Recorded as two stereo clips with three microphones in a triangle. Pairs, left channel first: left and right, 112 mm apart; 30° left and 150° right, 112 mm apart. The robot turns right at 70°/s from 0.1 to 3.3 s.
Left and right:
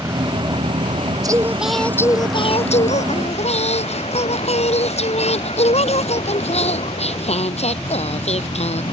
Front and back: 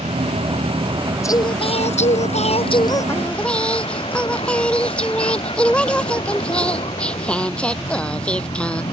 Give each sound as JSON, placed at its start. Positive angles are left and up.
{"t": 0.0, "sound": "a vehicle", "azimuth_deg": -155}
{"t": 1.2, "sound": "singing", "azimuth_deg": -35}